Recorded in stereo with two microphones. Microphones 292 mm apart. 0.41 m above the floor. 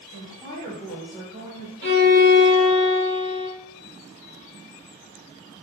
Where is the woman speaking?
25° left (ahead or behind), 0.8 m; by 1.7 s 15° right (ahead or behind), 1.1 m.